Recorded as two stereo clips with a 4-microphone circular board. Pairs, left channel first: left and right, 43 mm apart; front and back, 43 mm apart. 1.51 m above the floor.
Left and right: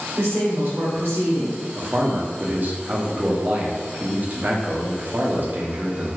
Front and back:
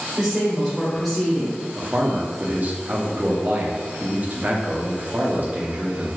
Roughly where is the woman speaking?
Right.